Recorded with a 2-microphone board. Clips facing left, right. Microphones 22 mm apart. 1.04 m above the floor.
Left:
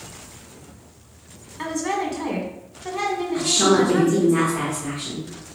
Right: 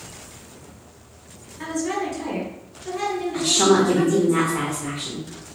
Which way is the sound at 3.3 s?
40° right (ahead or behind).